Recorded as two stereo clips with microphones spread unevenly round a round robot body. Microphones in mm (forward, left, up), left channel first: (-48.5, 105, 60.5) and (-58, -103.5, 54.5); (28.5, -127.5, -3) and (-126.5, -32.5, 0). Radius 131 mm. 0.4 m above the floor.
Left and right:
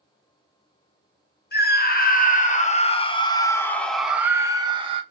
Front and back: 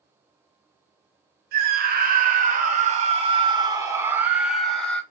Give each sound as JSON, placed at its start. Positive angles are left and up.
{"t": 1.5, "sound": "a scream", "azimuth_deg": 115, "distance_m": 2.0}